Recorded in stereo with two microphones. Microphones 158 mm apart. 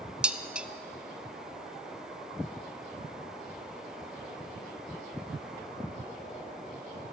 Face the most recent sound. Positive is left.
turn(degrees=-5)  # may be behind; listen again after turning